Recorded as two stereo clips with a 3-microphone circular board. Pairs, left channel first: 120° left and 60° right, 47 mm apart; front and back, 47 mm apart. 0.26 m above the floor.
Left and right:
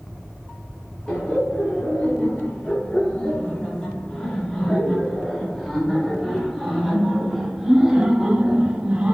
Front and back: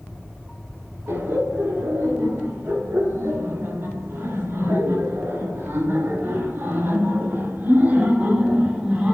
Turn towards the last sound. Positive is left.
turn(degrees=-125)